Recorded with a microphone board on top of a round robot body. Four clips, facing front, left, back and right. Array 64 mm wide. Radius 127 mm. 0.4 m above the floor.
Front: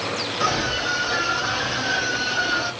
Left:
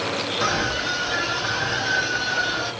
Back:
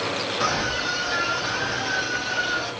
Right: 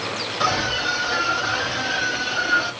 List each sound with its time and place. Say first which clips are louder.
0.4 s a scream: right 3 dB, front 2 dB; 80° right, 2.5 m; by 2.7 s 50° right, 3 m